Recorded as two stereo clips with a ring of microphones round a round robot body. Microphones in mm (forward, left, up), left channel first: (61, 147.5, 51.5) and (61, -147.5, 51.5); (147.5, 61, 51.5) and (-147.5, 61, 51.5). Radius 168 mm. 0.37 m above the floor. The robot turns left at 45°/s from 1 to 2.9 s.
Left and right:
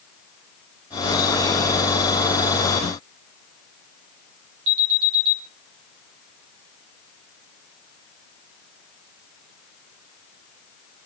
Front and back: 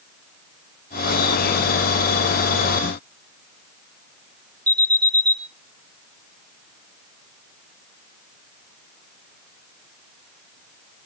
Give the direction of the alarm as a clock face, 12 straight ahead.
3 o'clock.